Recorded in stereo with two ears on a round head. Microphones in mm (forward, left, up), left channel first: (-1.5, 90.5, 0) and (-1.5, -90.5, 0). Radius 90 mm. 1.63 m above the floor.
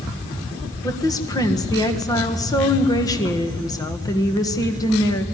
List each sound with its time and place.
0.8 s a woman speaking: 20° left (ahead or behind), 1.6 m